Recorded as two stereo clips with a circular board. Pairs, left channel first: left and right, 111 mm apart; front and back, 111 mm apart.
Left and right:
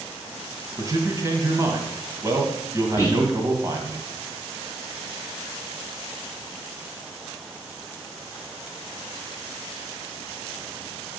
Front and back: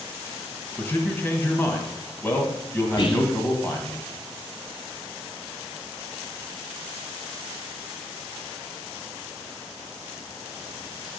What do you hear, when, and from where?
0.8 s a man speaking: 60° right, 1.8 m
3.0 s whispering: 35° left, 2.5 m